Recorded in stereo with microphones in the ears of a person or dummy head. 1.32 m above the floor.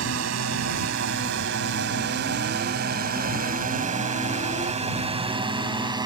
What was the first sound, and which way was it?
A drone, 75° right (ahead or behind).